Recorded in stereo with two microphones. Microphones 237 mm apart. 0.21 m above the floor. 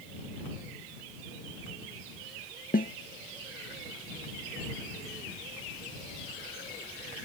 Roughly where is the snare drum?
Left.